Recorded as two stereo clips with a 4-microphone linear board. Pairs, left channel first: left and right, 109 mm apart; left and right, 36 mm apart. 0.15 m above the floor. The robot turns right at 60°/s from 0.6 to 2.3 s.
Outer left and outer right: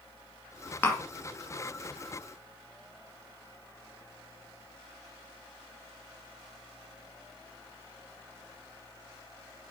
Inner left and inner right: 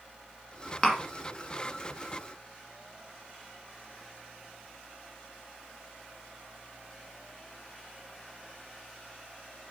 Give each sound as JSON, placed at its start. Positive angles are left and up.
{"t": 0.8, "sound": "tapping", "side_deg": 20, "distance_m": 1.3}